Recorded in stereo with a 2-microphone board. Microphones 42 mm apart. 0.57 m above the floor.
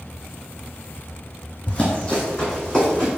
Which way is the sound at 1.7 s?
20° left (ahead or behind).